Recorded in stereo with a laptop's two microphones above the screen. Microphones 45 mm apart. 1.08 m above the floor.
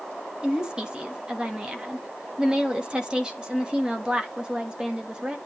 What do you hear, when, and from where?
0.4 s a woman speaking: 20° right (ahead or behind), 1.3 m